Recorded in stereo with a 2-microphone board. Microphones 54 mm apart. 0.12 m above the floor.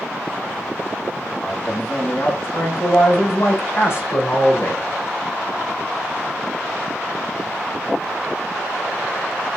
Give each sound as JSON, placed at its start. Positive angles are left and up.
{"t": 1.4, "sound": "a man speaking", "side_deg": 35, "distance_m": 7.0}